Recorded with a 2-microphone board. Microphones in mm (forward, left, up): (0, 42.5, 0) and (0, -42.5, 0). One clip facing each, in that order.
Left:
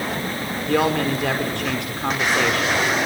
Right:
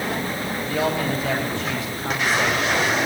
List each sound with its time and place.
0.7 s a woman speaking: 70° left (ahead or behind), 6 m